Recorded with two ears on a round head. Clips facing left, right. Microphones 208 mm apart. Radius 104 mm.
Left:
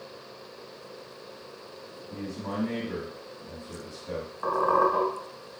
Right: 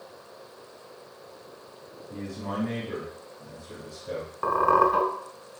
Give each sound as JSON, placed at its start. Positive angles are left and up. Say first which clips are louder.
{"t": 2.1, "sound": "a man speaking", "louder": "even", "side_deg": 0, "distance_m": 2.0}
{"t": 4.4, "sound": "a squeak", "louder": "right 1 dB", "side_deg": -50, "distance_m": 1.1}